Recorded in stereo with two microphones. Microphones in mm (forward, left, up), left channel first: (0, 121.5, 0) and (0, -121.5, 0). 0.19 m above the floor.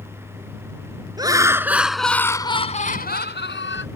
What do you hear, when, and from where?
1.2 s laughter: 15° right (ahead or behind); by 3.9 s 55° left (ahead or behind)